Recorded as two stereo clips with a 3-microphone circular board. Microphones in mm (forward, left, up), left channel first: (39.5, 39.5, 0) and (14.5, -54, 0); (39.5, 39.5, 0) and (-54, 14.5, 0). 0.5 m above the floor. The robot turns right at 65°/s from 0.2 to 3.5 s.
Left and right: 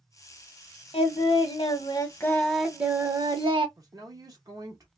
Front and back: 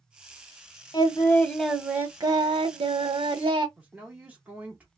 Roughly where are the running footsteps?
No running footsteps in this recording.